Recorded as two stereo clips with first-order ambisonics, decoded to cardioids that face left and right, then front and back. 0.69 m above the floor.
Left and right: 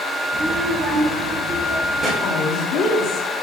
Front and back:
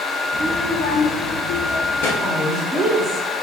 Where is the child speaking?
140° right, 0.6 m; by 2.1 s 30° right, 1.2 m.